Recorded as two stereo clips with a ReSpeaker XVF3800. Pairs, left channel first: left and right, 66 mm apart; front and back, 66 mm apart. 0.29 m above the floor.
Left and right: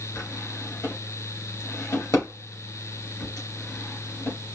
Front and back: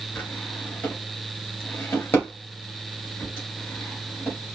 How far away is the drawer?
About 2.5 m.